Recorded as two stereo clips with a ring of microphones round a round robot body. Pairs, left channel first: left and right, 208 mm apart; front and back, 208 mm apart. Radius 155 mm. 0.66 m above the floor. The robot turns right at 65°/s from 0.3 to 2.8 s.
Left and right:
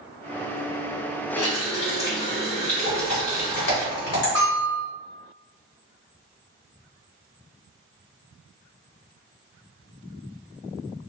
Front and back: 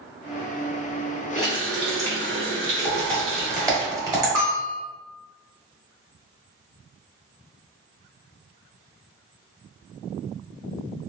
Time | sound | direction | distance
1.4 | a running tap | 85° left | 1.8 m
2.9 | typing on a keyboard | 105° left | 1.3 m
4.3 | a bell | 140° right | 0.6 m